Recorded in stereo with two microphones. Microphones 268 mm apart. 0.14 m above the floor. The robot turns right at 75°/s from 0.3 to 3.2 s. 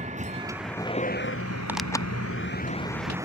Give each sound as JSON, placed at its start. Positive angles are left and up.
{"t": 0.0, "sound": "a vehicle", "azimuth_deg": -25}
{"t": 1.7, "sound": "tearing paper", "azimuth_deg": -10}